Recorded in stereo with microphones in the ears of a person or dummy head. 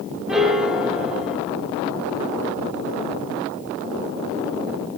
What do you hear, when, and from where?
0.3 s a piano: centre (ahead or behind), 0.9 m